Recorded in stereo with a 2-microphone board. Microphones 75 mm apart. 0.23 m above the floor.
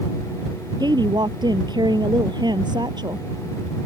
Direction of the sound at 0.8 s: 75° right (ahead or behind).